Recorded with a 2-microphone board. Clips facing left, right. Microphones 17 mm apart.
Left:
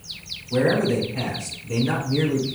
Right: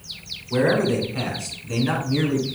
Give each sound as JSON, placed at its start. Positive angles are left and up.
{"t": 0.5, "sound": "a man speaking", "side_deg": -30, "distance_m": 1.7}